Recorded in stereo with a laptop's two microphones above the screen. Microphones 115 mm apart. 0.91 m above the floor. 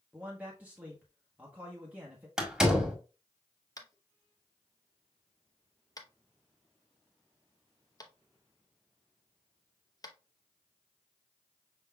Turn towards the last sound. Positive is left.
turn(degrees=30)  # may be behind; listen again after turning